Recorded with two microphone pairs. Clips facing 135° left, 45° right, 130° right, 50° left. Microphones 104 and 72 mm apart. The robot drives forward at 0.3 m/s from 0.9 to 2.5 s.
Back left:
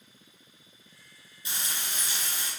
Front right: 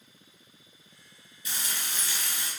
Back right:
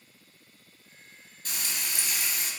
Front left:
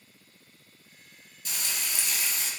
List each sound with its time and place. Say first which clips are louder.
1.4 s frying: even, even; 170° right, 1.6 m